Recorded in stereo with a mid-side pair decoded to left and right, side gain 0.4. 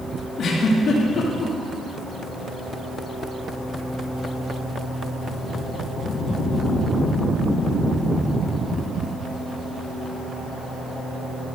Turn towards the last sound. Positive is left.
turn(degrees=60)